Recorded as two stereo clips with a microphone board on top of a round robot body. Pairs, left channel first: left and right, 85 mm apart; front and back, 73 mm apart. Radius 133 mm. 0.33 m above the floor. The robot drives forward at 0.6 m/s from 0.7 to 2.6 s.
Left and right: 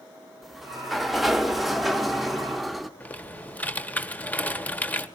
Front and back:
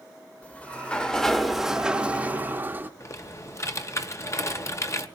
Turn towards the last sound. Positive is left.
turn(degrees=25)